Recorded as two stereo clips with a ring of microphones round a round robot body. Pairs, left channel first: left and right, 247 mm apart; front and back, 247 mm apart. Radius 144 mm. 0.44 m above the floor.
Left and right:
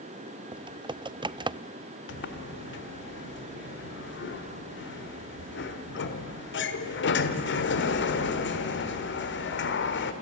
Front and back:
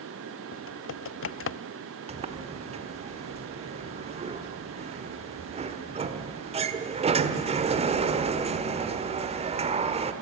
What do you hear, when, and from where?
0.5 s typing on a keyboard: 20° right, 0.5 m
2.1 s a sliding door: 120° left, 1.5 m